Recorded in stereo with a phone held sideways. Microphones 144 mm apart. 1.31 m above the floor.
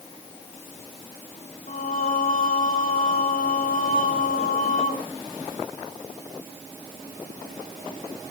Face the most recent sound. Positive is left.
turn(degrees=85)